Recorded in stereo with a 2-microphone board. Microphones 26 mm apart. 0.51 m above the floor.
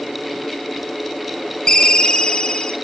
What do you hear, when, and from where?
1.7 s a ringtone: 25° left (ahead or behind), 0.5 m